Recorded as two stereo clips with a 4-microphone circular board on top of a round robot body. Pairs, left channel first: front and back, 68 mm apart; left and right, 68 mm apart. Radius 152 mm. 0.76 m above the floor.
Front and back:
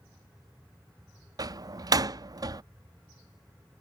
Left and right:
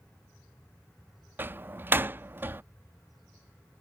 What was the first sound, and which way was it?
A door slam, 150° right.